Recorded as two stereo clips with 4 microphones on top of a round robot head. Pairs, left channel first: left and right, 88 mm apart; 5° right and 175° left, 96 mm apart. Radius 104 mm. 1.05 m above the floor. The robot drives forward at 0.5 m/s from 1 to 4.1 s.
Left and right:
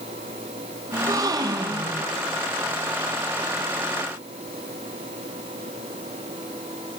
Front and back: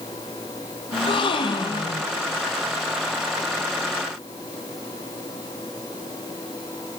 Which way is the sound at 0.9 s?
35° right.